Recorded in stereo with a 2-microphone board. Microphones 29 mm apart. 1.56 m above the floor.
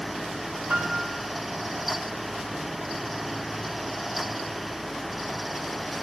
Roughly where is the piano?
Right.